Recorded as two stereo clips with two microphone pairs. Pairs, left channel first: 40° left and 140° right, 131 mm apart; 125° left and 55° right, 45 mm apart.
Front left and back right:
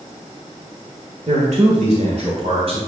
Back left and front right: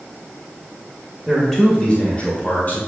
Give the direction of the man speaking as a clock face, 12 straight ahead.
5 o'clock.